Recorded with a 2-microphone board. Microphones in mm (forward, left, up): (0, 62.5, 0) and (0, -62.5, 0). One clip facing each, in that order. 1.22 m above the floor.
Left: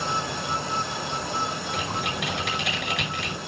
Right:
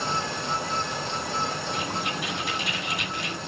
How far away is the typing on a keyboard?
About 5 m.